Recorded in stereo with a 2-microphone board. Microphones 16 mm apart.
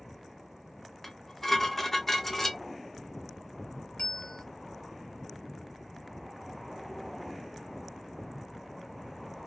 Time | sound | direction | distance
1.0 | dishes clattering | 20° left (ahead or behind) | 0.7 m
4.0 | a bell | 60° left (ahead or behind) | 1.1 m